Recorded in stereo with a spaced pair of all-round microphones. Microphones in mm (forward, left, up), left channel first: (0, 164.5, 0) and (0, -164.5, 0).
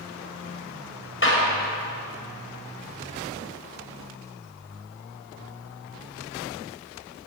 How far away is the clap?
About 7.5 m.